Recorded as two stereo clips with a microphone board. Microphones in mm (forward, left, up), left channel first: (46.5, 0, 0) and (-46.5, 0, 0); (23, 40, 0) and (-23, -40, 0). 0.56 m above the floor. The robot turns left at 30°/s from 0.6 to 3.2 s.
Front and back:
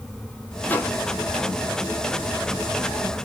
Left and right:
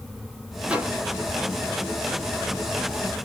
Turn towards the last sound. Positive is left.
turn(degrees=-130)